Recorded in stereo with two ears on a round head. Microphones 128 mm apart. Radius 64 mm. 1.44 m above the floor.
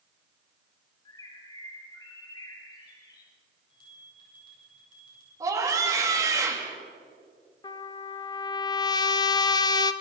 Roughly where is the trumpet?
Left.